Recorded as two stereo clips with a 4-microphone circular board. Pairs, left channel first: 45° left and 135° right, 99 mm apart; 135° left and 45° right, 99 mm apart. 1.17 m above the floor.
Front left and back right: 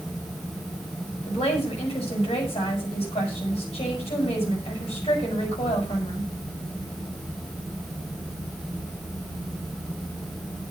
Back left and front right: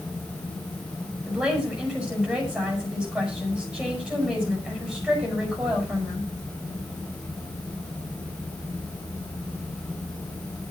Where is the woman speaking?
35° left, 8 m.